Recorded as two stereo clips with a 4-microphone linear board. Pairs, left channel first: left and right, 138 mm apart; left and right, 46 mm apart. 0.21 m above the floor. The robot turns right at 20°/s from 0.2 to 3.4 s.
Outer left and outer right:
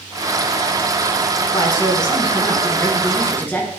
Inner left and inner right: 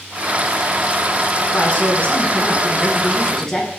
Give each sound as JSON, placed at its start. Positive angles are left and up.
{"t": 1.5, "sound": "a man speaking", "azimuth_deg": 125, "distance_m": 1.6}